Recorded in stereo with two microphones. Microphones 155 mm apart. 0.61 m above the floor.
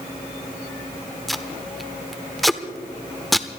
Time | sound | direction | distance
1.3 | tape being pulled | centre (ahead or behind) | 0.8 m